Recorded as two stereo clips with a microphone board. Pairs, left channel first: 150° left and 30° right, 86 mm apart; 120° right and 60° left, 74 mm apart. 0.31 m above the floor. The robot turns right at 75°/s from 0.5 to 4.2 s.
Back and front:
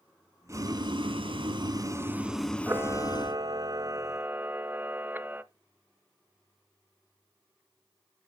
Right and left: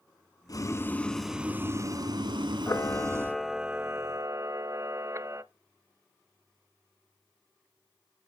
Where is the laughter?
I don't hear laughter.